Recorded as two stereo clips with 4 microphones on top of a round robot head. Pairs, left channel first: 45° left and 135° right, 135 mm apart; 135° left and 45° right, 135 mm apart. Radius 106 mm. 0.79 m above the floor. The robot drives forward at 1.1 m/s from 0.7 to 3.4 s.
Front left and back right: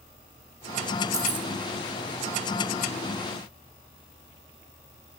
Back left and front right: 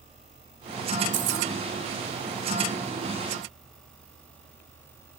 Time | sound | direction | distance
1.1 | keys jangling | 65° right | 1.1 m